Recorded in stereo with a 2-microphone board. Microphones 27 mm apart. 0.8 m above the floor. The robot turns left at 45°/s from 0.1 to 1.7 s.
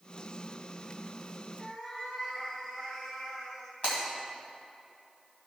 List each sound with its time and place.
1.6 s a cat meowing: 35° left (ahead or behind), 2 m; by 3.7 s 30° left (ahead or behind), 2 m
3.8 s breaking glass: 55° left (ahead or behind), 3 m